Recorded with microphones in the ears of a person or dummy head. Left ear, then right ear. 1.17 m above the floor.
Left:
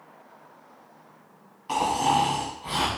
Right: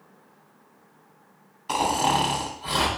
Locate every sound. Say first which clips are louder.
1.7 s snoring: even; 15° right (ahead or behind), 1.7 m